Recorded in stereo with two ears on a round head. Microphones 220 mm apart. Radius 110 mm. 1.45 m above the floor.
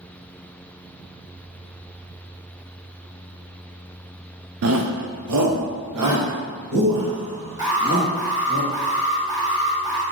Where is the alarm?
20° right (ahead or behind), 1.8 m.